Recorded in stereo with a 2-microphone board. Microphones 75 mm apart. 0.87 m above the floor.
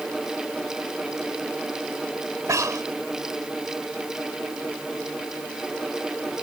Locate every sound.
2.5 s breathing: 45° right (ahead or behind)